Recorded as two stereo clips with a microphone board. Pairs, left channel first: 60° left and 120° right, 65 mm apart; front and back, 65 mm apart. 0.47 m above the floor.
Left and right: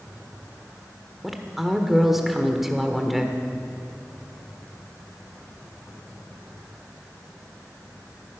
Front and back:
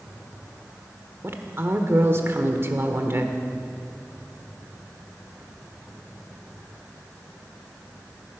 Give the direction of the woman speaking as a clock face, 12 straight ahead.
7 o'clock.